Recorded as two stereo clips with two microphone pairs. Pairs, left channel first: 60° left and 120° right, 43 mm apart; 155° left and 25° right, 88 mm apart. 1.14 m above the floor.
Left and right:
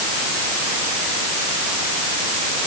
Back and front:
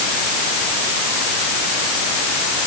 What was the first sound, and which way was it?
Only background noise.